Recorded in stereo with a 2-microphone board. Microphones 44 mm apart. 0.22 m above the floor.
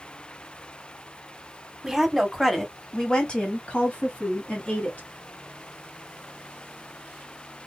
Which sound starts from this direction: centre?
A woman speaking, at 1.8 s.